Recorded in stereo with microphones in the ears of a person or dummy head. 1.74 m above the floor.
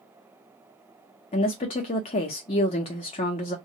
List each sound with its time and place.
1.3 s a woman speaking: 30° left (ahead or behind), 0.8 m